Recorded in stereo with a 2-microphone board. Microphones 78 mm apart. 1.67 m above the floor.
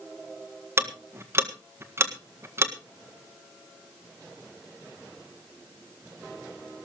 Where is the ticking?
30° right (ahead or behind), 1.7 m.